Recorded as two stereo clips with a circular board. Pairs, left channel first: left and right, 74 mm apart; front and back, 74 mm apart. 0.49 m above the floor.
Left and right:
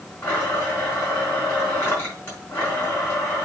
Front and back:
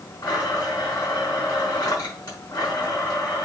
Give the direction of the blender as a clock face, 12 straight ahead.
11 o'clock.